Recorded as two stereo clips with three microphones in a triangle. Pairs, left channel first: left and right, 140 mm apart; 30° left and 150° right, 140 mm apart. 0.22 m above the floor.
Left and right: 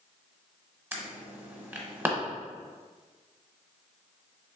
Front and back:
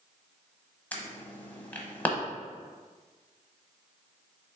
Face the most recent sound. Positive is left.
turn(degrees=-35)